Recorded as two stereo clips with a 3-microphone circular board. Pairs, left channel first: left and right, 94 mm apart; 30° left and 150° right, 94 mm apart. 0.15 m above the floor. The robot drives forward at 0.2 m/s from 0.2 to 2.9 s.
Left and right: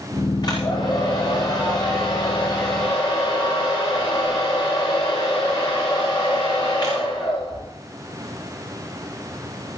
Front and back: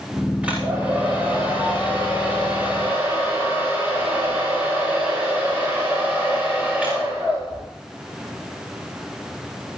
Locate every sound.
0.4 s a hair dryer: 135° left, 9.5 m; by 7.6 s 140° left, 10 m